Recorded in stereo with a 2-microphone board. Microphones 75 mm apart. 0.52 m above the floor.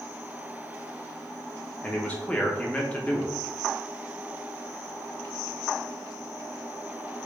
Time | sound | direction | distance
1.8 | a man speaking | 20° left (ahead or behind) | 0.7 m